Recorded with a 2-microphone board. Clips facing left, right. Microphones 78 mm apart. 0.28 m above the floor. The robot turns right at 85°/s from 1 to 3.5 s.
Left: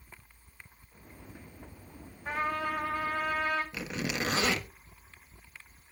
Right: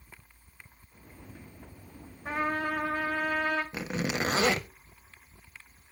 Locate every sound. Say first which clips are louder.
2.2 s a trumpet: right 2 dB; 145° right, 7 m; by 3.6 s 40° right, 7 m
3.7 s a zipper: right 3 dB; 35° right (ahead or behind), 0.9 m